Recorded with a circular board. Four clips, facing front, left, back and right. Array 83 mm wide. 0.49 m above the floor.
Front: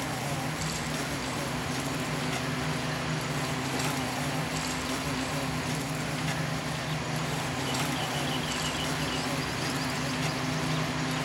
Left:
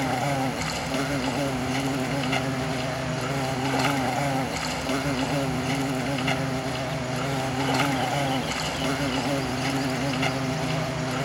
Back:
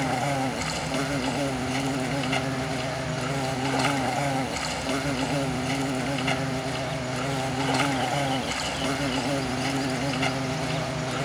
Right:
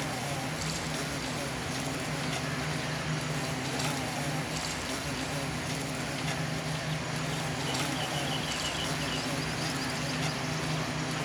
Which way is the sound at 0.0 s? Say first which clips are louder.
Left 10 dB, back 7 dB; 130° left.